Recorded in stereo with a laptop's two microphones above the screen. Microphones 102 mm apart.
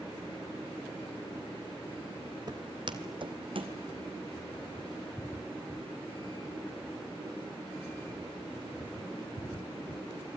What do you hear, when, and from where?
2.5 s footsteps: 40° right (ahead or behind), 1.3 m; by 3.8 s 55° right (ahead or behind), 2 m